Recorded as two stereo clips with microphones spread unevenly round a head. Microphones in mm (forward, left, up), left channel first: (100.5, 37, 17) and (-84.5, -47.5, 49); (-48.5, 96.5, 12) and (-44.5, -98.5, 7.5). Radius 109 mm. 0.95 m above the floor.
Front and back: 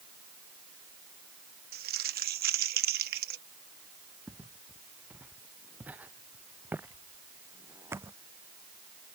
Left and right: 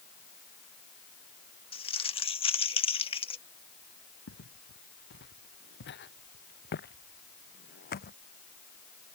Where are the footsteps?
120° left; by 8.2 s 130° left.